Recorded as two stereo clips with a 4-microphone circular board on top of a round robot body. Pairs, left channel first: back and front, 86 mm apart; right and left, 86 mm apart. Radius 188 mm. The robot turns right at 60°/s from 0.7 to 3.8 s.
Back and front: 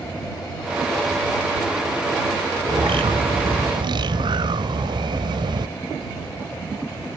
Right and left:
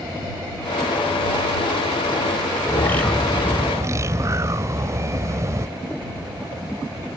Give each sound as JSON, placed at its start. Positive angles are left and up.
{"t": 2.7, "sound": "a bird", "azimuth_deg": -35}